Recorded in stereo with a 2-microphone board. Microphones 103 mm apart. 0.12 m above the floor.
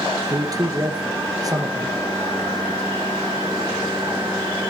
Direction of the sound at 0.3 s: 35° right (ahead or behind).